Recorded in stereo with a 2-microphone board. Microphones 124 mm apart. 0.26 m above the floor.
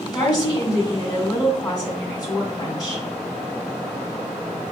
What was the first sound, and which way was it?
A woman speaking, 35° left (ahead or behind).